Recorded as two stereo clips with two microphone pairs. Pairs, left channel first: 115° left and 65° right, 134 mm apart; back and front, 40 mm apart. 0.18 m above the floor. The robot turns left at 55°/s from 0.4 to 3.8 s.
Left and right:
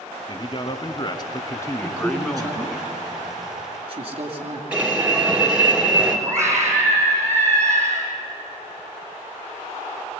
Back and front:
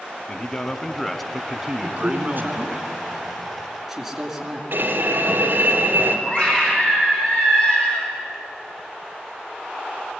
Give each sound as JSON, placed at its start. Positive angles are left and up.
{"t": 0.3, "sound": "a man speaking", "azimuth_deg": 135, "distance_m": 1.3}
{"t": 1.8, "sound": "a man speaking", "azimuth_deg": 20, "distance_m": 2.5}
{"t": 4.7, "sound": "an alarm", "azimuth_deg": 15, "distance_m": 3.0}
{"t": 6.3, "sound": "a scream", "azimuth_deg": -130, "distance_m": 7.0}